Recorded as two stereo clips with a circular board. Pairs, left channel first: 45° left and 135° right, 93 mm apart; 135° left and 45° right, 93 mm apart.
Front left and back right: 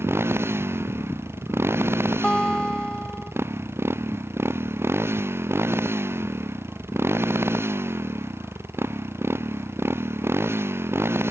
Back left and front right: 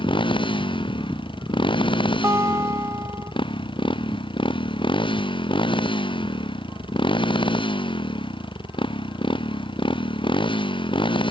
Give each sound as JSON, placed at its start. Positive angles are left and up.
{"t": 0.0, "sound": "a motorcycle", "azimuth_deg": 160}
{"t": 2.2, "sound": "a guitar", "azimuth_deg": -30}